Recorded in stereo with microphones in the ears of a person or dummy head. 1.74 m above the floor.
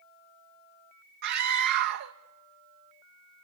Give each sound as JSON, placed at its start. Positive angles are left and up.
{"t": 1.2, "sound": "a scream", "side_deg": -60, "distance_m": 1.0}